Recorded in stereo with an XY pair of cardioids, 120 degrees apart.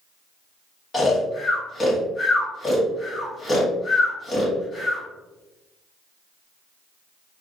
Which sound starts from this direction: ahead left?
Snoring, at 0.9 s.